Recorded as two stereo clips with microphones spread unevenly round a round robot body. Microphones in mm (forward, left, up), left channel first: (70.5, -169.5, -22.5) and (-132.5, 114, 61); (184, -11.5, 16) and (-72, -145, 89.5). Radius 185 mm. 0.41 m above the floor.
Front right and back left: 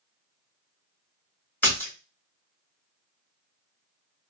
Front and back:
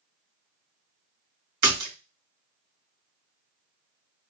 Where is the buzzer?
No buzzer in this recording.